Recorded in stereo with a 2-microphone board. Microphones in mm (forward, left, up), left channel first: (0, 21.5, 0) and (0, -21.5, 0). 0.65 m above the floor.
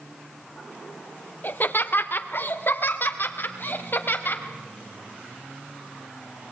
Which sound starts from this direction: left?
Laughter, at 1.4 s.